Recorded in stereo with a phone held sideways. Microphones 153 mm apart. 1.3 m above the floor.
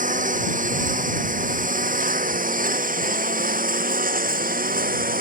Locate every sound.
0.0 s a lawn mower: 60° right (ahead or behind); by 5.2 s 70° right (ahead or behind)